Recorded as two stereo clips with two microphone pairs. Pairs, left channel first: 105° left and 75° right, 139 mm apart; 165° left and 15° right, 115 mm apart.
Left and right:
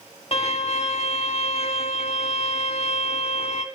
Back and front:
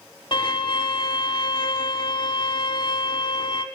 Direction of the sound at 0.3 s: 130° left.